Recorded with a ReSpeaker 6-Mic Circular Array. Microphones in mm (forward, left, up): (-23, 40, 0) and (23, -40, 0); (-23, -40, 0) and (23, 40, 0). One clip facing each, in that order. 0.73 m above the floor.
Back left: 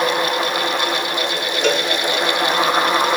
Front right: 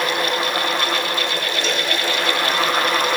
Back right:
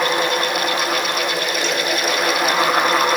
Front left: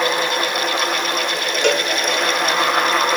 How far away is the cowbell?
About 0.9 m.